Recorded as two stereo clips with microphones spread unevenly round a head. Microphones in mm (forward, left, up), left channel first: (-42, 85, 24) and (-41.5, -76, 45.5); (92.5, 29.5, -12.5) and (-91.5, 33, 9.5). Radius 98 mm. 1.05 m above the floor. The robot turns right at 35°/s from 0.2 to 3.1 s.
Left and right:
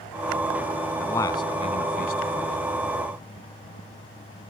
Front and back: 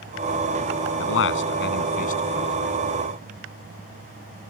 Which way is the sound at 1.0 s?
10° left.